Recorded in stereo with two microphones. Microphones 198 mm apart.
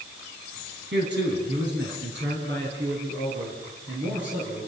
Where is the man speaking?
65° right (ahead or behind), 3.5 m.